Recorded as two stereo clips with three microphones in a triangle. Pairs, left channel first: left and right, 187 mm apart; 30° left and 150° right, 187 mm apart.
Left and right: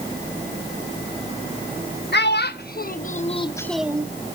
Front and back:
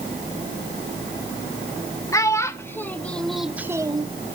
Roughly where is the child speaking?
Left.